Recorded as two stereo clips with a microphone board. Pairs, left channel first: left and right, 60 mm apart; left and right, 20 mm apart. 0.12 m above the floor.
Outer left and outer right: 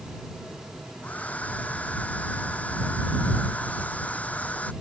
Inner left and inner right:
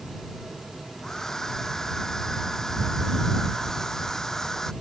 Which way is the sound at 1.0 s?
25° left (ahead or behind).